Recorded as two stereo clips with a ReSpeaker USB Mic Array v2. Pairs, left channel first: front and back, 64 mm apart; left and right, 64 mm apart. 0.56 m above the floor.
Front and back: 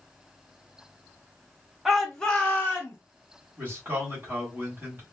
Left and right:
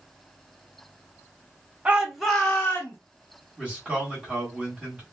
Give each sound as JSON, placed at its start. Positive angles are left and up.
{"t": 1.9, "sound": "a shout", "azimuth_deg": -95, "distance_m": 0.7}
{"t": 3.6, "sound": "a man speaking", "azimuth_deg": -150, "distance_m": 1.5}